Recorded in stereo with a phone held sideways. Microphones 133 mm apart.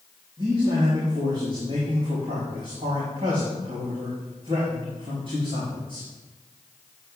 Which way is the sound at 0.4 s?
40° right (ahead or behind).